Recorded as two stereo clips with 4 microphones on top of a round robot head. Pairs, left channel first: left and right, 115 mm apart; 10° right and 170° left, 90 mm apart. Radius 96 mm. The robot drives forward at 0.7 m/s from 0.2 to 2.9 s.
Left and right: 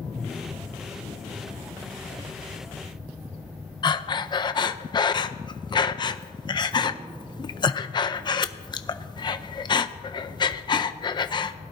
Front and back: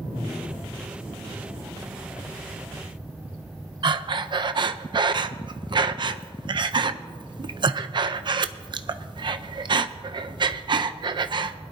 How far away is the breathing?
About 0.7 m.